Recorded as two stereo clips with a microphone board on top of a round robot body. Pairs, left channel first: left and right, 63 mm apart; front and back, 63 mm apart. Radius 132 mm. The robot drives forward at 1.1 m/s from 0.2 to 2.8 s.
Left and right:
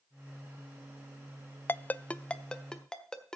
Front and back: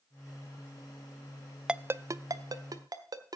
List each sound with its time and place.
1.7 s a ringtone: 110° left, 0.5 m; by 3.4 s 170° left, 1.4 m